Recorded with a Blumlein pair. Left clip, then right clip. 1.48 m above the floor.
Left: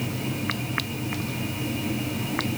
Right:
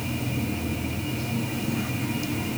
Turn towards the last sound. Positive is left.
No sound to turn to.